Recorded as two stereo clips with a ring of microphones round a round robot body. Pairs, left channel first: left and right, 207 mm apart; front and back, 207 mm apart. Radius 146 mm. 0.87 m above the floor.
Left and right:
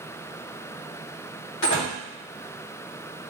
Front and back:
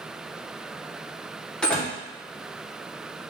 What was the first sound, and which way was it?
A door slam, 85° left.